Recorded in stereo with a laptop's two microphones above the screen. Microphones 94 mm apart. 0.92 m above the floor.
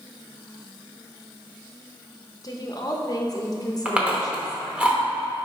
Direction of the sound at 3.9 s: 10° right (ahead or behind).